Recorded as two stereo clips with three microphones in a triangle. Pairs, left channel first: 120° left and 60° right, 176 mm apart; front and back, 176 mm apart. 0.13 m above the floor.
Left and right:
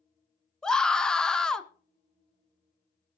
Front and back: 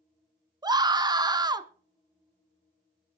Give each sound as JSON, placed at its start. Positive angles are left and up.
{"t": 0.6, "sound": "a scream", "azimuth_deg": -160, "distance_m": 1.1}